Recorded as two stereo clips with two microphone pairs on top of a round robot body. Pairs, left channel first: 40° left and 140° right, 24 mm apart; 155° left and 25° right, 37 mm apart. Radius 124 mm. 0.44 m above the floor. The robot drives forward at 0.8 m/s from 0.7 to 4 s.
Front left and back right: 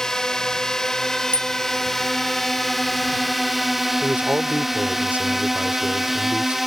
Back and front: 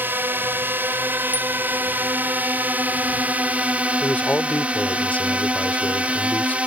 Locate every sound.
0.0 s a drone: 25° right; by 6.7 s 55° right
1.3 s a bicycle bell: 30° left
4.0 s a man speaking: 160° right